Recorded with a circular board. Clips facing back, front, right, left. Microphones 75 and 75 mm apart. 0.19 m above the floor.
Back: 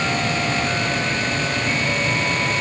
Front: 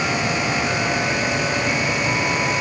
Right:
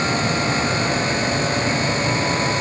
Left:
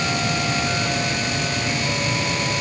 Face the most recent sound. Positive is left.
No sound to turn to.